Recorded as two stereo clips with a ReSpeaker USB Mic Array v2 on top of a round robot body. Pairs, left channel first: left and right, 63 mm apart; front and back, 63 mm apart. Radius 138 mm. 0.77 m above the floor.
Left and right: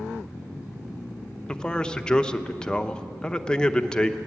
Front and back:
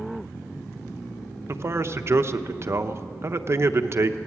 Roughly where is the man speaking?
Behind.